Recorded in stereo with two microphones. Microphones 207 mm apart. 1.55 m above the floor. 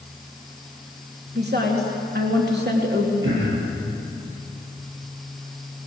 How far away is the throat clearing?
About 8.5 m.